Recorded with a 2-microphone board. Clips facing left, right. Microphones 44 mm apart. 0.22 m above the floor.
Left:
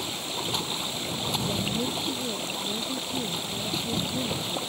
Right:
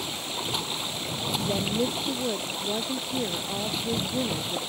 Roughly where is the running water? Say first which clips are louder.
Even; centre.